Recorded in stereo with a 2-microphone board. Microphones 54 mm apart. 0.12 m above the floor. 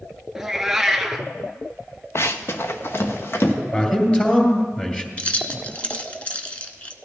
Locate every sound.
0.3 s a cat meowing: 10° right (ahead or behind), 0.6 m
2.1 s running footsteps: 55° left (ahead or behind), 0.8 m; by 3.5 s 45° left (ahead or behind), 2 m
3.7 s a man speaking: 25° left (ahead or behind), 2 m
5.2 s keys jangling: 25° left (ahead or behind), 0.8 m